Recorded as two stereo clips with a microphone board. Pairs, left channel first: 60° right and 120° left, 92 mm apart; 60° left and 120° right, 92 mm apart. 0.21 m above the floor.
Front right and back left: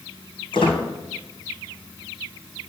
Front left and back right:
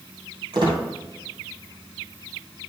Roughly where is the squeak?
Right.